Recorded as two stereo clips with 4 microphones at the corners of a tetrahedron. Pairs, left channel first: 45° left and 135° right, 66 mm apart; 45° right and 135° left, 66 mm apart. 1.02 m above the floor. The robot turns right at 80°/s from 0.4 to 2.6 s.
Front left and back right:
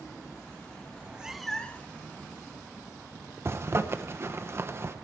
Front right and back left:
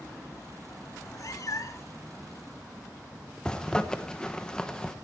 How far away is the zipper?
About 0.9 m.